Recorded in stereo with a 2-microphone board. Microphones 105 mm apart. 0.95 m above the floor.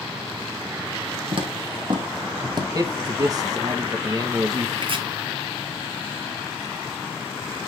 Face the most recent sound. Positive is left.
turn(degrees=-60)  # may be behind; listen again after turning